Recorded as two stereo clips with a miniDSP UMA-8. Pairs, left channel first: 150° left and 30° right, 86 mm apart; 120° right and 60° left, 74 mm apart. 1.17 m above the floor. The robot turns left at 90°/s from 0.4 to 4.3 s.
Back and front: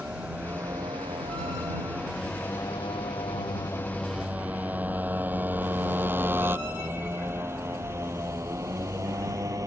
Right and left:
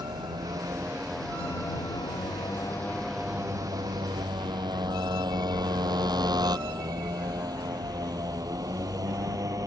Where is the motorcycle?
40° left; by 9.7 s 20° left.